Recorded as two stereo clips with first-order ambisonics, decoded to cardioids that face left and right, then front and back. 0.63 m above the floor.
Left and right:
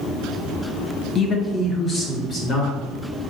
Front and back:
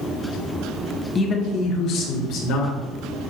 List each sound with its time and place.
1.1 s a man speaking: 50° left, 1.0 m; by 2.8 s 25° left, 2.5 m